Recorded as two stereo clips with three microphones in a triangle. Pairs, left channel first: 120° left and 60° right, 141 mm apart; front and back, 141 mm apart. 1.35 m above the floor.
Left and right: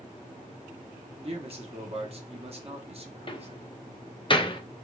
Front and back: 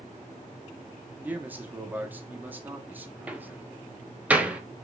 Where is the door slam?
105° left, 0.5 m.